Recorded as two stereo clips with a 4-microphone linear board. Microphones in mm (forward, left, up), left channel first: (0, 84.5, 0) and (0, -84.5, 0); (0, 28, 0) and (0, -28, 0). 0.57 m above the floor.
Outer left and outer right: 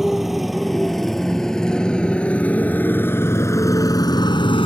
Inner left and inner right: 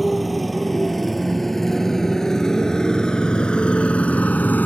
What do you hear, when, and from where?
0.0 s a motorcycle: centre (ahead or behind); by 4.7 s 35° left (ahead or behind)